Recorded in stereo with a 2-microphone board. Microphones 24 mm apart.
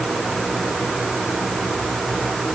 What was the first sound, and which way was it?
Only background noise.